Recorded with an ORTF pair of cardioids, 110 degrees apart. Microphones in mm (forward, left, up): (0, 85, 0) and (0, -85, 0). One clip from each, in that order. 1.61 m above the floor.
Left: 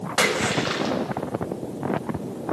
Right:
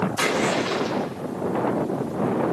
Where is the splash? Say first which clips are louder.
Left 2 dB; 55° left, 6 m.